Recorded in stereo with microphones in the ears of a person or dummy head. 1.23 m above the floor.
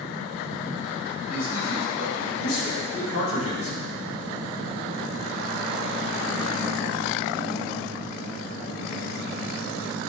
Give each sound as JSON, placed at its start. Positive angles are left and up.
{"t": 1.3, "sound": "a man speaking", "side_deg": 75, "distance_m": 5.5}